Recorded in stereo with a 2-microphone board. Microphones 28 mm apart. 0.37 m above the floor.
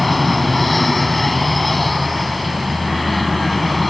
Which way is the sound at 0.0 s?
Centre (ahead or behind).